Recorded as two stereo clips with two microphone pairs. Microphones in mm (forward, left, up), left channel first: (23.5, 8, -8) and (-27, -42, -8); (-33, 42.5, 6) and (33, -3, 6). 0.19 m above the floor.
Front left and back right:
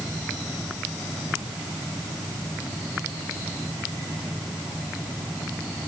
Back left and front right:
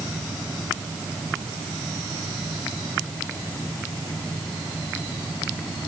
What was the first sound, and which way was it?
Only background noise.